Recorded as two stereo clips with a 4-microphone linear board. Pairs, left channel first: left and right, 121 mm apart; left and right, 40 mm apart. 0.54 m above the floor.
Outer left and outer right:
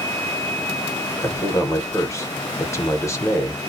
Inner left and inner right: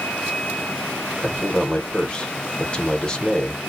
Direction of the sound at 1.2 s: 25° left (ahead or behind).